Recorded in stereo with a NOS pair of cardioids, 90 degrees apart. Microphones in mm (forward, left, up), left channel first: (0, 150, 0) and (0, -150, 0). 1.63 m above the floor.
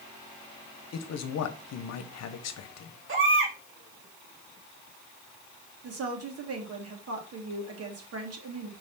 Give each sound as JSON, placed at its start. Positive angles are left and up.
{"t": 0.9, "sound": "a man speaking", "azimuth_deg": 65, "distance_m": 1.1}
{"t": 3.1, "sound": "a baby crying", "azimuth_deg": -45, "distance_m": 2.5}
{"t": 5.8, "sound": "a woman speaking", "azimuth_deg": -55, "distance_m": 2.5}